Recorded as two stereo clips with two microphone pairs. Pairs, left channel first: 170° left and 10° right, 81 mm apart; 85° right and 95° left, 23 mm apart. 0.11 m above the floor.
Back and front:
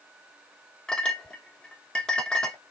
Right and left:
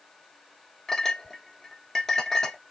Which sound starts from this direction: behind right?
A clink, at 0.9 s.